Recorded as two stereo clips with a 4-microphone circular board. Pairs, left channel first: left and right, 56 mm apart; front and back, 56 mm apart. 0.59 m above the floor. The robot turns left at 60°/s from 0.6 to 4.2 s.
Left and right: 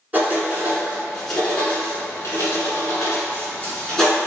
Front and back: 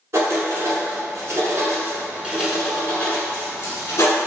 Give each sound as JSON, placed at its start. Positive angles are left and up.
{"t": 0.1, "sound": "writing", "azimuth_deg": -150, "distance_m": 1.0}